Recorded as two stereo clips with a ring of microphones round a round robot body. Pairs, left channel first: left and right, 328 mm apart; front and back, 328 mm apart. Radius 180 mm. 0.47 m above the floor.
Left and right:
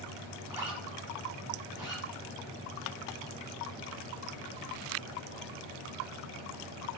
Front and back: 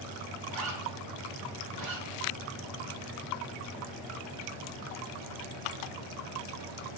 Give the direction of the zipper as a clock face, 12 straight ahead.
6 o'clock.